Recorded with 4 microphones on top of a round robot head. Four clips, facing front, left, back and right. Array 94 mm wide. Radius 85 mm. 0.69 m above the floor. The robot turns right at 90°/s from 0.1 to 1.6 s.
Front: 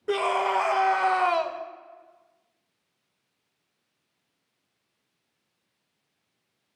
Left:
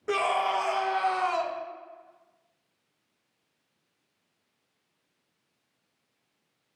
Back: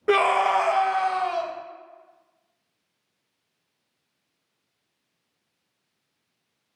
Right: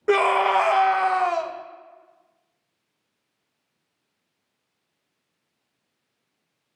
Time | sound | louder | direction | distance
0.1 | a scream | right 8 dB, back 5 dB | 140° right | 0.7 m